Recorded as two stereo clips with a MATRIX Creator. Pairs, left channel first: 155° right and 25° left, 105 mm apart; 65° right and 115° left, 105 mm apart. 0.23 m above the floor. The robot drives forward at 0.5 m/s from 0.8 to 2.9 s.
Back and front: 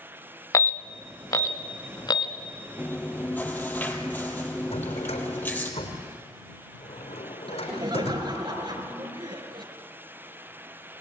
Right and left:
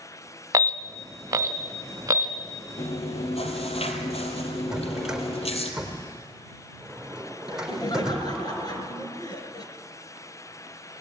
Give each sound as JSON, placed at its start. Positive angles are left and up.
{"t": 0.5, "sound": "an alarm", "azimuth_deg": 160, "distance_m": 1.3}
{"t": 2.8, "sound": "chewing", "azimuth_deg": -85, "distance_m": 2.5}
{"t": 4.7, "sound": "a drawer", "azimuth_deg": -165, "distance_m": 4.0}
{"t": 7.5, "sound": "laughter", "azimuth_deg": -15, "distance_m": 3.5}